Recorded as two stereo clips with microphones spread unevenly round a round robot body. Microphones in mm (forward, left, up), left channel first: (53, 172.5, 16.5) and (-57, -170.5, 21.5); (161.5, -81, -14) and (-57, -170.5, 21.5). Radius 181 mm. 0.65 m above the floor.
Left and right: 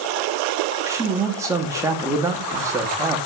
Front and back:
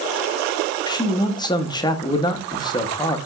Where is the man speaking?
30° right, 0.7 m.